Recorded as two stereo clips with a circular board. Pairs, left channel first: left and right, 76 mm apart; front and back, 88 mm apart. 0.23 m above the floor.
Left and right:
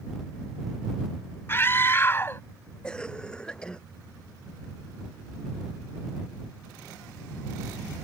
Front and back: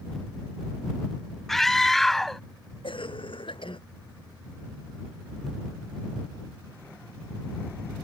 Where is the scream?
80° left.